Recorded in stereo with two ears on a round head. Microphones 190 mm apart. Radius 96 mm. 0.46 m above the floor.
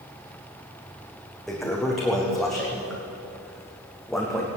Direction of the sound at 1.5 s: Centre (ahead or behind).